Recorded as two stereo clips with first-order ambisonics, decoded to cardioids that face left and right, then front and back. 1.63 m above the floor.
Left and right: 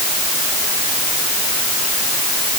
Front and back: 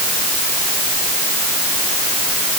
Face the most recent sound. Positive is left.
No sound to turn to.